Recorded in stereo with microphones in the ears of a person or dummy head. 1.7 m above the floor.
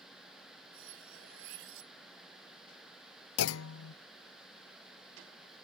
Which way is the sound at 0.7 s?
75° right (ahead or behind).